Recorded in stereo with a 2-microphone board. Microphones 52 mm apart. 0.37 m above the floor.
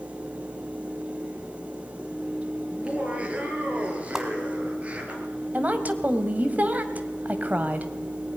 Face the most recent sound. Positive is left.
turn(degrees=-35)  # may be behind; listen again after turning